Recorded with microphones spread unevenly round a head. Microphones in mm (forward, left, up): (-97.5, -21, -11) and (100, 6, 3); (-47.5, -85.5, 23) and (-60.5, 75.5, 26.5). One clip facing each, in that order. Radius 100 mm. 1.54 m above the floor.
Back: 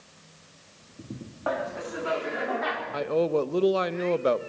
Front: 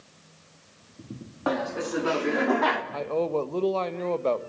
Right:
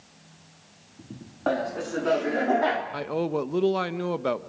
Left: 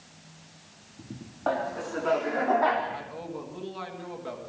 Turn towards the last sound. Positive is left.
turn(degrees=-100)